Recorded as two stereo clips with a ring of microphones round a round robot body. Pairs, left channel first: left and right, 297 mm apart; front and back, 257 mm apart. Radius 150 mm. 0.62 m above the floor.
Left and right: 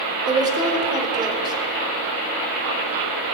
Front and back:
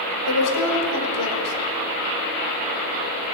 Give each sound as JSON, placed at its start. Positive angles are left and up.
{"t": 0.3, "sound": "a woman speaking", "azimuth_deg": -15, "distance_m": 2.0}